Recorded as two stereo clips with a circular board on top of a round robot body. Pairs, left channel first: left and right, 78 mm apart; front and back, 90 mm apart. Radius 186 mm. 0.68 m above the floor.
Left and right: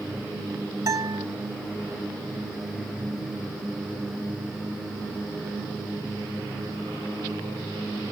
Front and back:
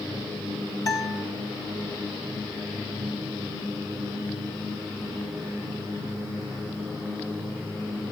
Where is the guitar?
45° right, 4 m.